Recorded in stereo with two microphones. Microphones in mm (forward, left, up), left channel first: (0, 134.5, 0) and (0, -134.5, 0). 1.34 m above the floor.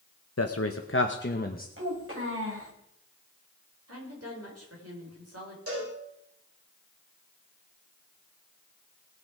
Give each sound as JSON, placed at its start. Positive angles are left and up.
{"t": 0.4, "sound": "a man speaking", "side_deg": 65, "distance_m": 0.9}
{"t": 1.8, "sound": "a child speaking", "side_deg": -50, "distance_m": 5.5}
{"t": 3.9, "sound": "a woman speaking", "side_deg": -60, "distance_m": 5.0}
{"t": 5.7, "sound": "a cowbell", "side_deg": -60, "distance_m": 6.5}